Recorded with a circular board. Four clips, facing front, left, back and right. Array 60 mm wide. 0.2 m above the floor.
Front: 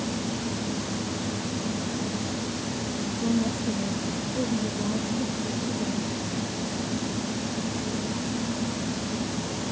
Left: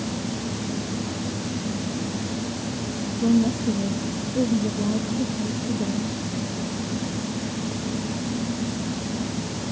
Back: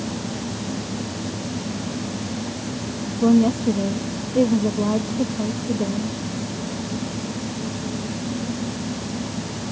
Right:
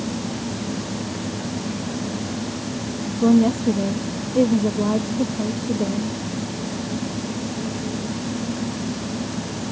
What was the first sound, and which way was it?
A woman speaking, 135° right.